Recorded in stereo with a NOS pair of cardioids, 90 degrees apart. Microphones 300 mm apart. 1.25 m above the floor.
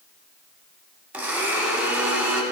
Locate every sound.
1.1 s a blender: 5° right, 2 m